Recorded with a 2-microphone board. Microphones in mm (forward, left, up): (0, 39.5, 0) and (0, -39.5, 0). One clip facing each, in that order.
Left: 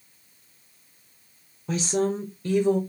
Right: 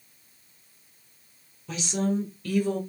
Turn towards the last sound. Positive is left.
turn(degrees=15)  # may be behind; listen again after turning